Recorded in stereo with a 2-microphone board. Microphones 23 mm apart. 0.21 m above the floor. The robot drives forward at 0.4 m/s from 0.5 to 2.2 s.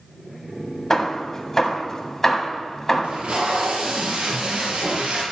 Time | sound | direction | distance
0.9 | hammering | 20° left (ahead or behind) | 1.3 m
3.0 | tape being pulled | 65° right (ahead or behind) | 3.5 m